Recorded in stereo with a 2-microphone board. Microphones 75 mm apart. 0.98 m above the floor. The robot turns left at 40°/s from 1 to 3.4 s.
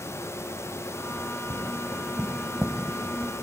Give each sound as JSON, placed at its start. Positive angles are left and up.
{"t": 1.5, "sound": "tapping", "side_deg": -45, "distance_m": 1.2}